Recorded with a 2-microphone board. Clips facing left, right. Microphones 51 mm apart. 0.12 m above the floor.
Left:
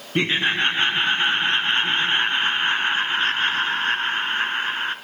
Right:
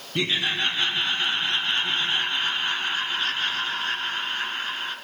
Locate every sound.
0.1 s laughter: 35° left (ahead or behind), 1.2 m